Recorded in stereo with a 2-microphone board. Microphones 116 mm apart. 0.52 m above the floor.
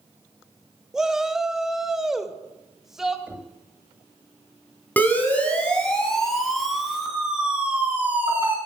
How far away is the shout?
About 0.7 m.